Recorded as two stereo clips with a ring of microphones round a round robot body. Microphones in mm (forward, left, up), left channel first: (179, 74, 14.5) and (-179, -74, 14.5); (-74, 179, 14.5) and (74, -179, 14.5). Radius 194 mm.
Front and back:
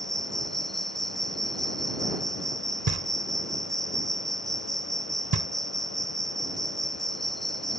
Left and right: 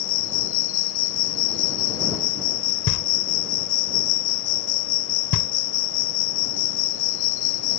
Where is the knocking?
155° left.